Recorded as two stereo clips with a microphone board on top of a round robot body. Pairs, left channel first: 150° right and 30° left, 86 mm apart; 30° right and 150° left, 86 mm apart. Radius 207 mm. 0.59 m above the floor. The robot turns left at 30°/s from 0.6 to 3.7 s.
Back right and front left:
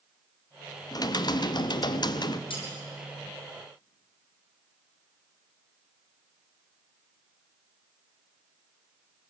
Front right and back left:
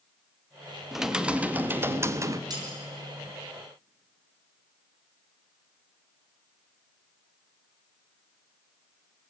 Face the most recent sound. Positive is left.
turn(degrees=155)